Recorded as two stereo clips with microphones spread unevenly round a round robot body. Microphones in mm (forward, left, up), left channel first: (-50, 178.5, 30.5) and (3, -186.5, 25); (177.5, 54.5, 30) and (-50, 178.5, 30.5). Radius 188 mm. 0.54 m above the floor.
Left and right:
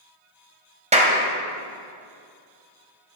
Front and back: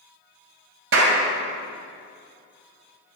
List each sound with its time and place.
0.9 s a clap: 155° right, 2.5 m